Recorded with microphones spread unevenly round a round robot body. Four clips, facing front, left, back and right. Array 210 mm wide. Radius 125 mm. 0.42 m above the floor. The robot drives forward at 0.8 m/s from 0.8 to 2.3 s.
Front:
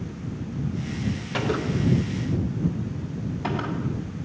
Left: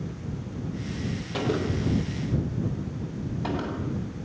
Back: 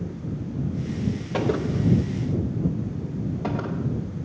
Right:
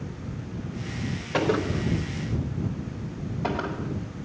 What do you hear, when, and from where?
1.3 s a gunshot: 150° right, 1.1 m; by 3.9 s 165° right, 1.7 m